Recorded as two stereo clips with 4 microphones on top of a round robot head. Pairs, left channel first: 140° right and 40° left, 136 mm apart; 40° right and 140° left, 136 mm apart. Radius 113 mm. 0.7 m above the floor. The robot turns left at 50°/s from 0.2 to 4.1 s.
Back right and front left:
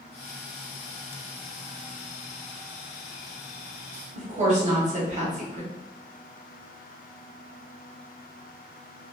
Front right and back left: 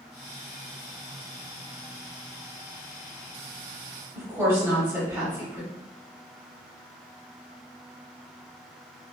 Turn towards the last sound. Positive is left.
turn(degrees=70)